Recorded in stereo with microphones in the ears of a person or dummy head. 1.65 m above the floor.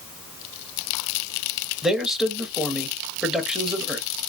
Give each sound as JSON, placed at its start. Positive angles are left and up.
{"t": 1.8, "sound": "a man speaking", "side_deg": -5, "distance_m": 0.9}